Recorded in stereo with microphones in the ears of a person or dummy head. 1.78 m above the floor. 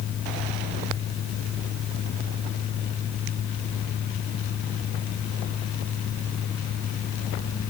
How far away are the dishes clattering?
No dishes clattering in this recording.